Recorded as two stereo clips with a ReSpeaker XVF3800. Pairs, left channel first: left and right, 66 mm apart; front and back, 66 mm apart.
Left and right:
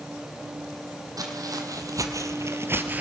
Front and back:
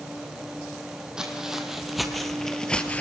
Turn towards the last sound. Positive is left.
turn(degrees=-45)